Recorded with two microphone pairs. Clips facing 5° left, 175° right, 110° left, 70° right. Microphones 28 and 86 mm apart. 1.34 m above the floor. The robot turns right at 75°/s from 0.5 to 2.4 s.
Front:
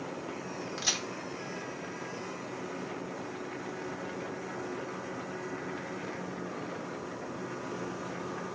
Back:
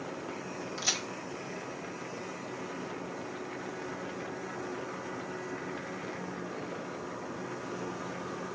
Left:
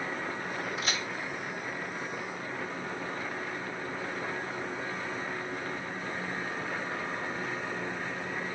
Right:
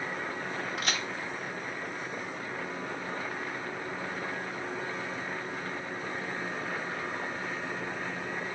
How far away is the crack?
About 1.5 m.